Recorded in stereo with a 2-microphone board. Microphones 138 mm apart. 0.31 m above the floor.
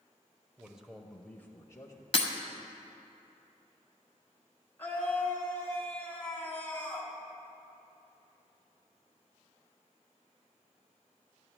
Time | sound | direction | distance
0.6 | a man speaking | 10° right (ahead or behind) | 0.9 m
2.1 | breaking glass | 45° left (ahead or behind) | 1.2 m
4.8 | a scream | 15° left (ahead or behind) | 3 m